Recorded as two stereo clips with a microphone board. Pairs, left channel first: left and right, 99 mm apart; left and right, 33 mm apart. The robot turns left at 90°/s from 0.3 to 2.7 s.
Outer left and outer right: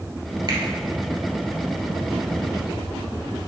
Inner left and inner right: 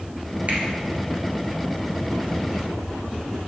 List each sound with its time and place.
0.5 s a finger snap: 45° right (ahead or behind), 2 m